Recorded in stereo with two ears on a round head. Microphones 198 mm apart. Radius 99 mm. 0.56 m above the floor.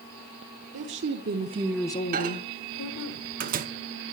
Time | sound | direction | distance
0.7 | a woman speaking | 60° right (ahead or behind) | 1.4 m
2.1 | a microwave | 40° right (ahead or behind) | 0.8 m